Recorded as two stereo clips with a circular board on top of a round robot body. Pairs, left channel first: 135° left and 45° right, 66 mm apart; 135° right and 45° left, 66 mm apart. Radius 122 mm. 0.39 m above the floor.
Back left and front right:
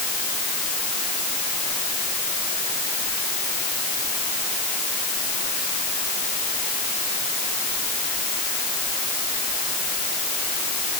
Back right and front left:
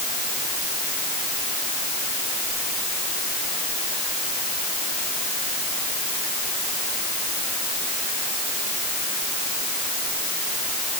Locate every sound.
Only background noise.